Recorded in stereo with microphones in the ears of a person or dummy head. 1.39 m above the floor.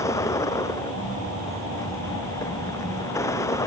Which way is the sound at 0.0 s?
20° left (ahead or behind).